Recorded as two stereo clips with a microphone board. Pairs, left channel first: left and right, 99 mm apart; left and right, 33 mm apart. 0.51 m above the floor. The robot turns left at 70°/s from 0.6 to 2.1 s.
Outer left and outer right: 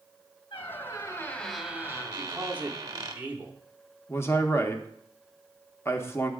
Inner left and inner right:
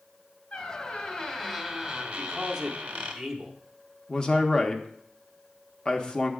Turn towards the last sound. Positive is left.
turn(degrees=25)  # may be behind; listen again after turning